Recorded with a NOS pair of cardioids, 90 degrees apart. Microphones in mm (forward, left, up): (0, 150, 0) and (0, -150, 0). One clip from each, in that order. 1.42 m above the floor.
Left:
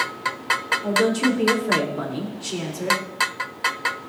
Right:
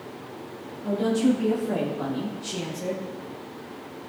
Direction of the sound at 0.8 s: 65° left.